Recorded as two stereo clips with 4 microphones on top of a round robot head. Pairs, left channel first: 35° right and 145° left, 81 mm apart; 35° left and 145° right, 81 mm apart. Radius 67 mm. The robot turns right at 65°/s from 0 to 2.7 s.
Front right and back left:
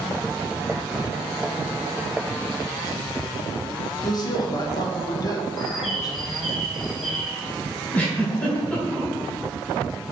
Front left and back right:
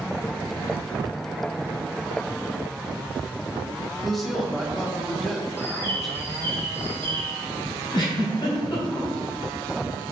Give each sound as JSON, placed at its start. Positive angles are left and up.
{"t": 4.0, "sound": "a woman speaking", "azimuth_deg": -50, "distance_m": 1.4}
{"t": 5.6, "sound": "a bird", "azimuth_deg": 55, "distance_m": 1.4}
{"t": 7.9, "sound": "a giggle", "azimuth_deg": 30, "distance_m": 2.0}